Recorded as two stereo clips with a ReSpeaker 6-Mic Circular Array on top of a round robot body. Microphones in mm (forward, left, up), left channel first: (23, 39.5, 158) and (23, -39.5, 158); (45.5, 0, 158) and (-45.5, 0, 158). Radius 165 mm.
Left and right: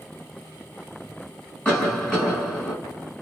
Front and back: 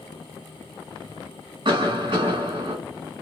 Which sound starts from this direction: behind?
A cough, at 1.6 s.